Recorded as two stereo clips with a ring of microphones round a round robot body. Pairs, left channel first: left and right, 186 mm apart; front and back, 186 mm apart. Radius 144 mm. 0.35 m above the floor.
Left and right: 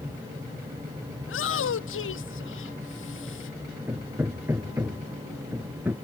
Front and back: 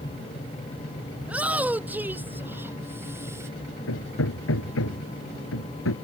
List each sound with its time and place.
1.2 s a shout: 95° left; by 3.5 s 105° left
3.9 s hammering: 10° right